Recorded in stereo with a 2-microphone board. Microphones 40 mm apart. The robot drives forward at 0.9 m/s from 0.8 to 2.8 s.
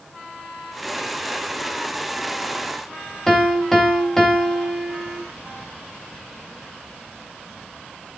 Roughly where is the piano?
Centre.